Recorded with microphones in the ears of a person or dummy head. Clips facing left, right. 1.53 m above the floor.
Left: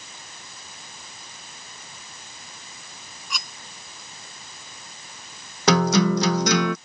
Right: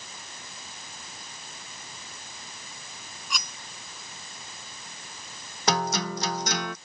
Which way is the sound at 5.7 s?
70° left (ahead or behind).